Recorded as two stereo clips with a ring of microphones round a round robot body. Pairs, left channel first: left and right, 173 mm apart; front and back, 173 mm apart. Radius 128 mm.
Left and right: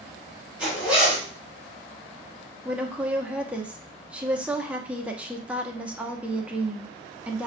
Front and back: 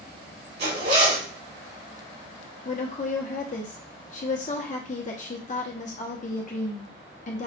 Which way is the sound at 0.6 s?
170° right.